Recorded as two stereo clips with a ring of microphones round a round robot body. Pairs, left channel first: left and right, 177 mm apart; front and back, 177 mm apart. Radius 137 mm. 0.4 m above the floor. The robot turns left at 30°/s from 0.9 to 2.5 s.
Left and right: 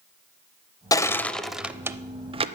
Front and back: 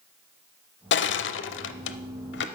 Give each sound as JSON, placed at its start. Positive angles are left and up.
{"t": 0.9, "sound": "crushing", "azimuth_deg": 15, "distance_m": 0.6}